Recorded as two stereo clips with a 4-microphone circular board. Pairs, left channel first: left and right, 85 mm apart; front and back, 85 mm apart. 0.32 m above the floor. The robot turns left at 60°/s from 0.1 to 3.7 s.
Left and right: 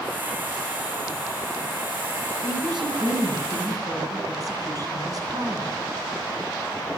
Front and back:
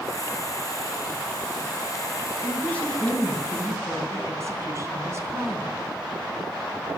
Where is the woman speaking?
50° right, 3.5 m; by 5.8 s 130° right, 3.5 m.